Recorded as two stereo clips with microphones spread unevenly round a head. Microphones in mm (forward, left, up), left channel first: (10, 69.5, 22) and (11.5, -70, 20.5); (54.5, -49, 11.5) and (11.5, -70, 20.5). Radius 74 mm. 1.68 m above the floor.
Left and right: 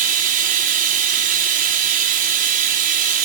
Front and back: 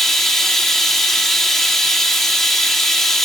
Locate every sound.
0.0 s running water: 60° right, 4 m